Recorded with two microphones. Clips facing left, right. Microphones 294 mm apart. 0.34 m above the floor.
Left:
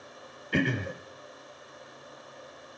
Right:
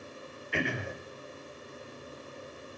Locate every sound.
0.5 s throat clearing: 45° left (ahead or behind), 0.5 m